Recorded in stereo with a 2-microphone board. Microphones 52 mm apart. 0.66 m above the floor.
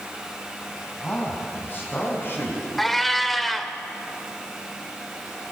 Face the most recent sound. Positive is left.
turn(degrees=5)  # may be behind; listen again after turning